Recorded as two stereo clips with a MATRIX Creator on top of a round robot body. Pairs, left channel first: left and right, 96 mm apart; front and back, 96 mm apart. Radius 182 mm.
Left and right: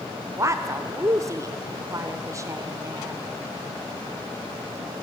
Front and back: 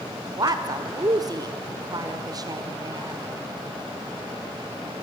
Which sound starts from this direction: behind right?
A woman speaking, at 0.4 s.